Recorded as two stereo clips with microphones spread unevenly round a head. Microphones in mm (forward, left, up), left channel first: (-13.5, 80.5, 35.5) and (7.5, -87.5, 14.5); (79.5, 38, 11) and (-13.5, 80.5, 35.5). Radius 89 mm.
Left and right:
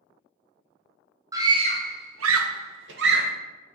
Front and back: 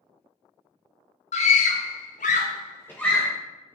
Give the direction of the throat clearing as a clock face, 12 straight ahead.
I don't hear throat clearing.